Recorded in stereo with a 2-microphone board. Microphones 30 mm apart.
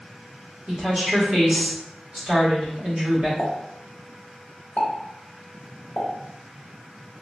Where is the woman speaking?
45° right (ahead or behind), 1.6 m.